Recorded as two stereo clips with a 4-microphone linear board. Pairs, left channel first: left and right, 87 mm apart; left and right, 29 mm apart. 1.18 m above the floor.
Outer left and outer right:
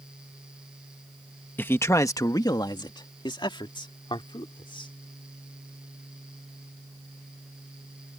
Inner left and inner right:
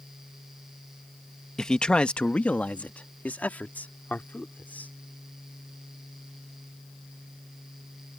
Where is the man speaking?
25° left (ahead or behind); by 4.9 s 75° left (ahead or behind).